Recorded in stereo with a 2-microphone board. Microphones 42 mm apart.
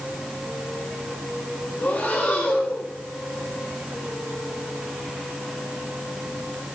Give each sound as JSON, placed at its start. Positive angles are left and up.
{"t": 1.8, "sound": "breathing", "side_deg": 50, "distance_m": 2.5}